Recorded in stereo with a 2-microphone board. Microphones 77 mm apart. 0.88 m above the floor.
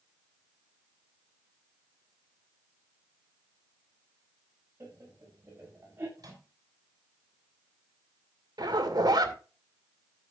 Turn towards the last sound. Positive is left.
turn(degrees=-65)  # may be behind; listen again after turning